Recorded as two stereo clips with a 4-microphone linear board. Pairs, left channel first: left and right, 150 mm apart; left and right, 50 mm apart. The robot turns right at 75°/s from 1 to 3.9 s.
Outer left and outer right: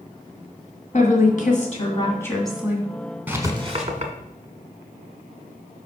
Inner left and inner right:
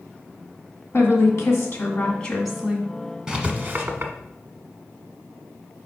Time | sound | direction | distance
0.9 | a woman speaking | 70° left | 1.9 m
3.3 | writing | 10° right (ahead or behind) | 1.2 m